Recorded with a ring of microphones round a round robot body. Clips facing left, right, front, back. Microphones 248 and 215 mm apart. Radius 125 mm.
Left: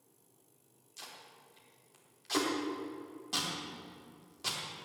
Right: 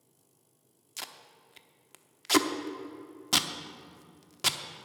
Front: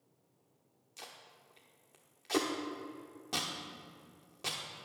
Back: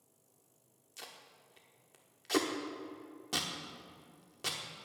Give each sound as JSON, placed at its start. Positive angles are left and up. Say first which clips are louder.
{"t": 1.0, "sound": "tape being pulled", "louder": "right 4 dB, even", "azimuth_deg": -95, "distance_m": 0.9}